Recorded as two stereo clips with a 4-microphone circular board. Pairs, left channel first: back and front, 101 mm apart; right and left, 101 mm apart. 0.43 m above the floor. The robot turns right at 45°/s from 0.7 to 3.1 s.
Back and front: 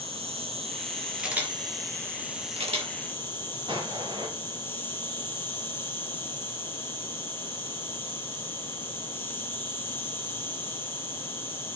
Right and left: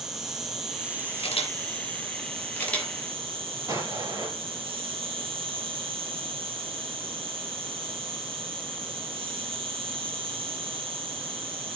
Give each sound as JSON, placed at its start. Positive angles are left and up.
{"t": 0.0, "sound": "an insect", "azimuth_deg": 5, "distance_m": 2.5}
{"t": 1.2, "sound": "a camera shutter", "azimuth_deg": -85, "distance_m": 3.5}
{"t": 3.7, "sound": "an explosion", "azimuth_deg": 35, "distance_m": 4.0}